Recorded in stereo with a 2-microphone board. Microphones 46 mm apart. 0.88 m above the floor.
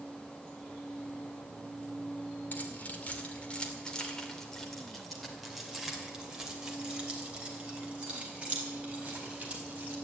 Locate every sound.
2.5 s keys jangling: 40° left (ahead or behind), 2 m; by 9.9 s 30° right (ahead or behind), 4.5 m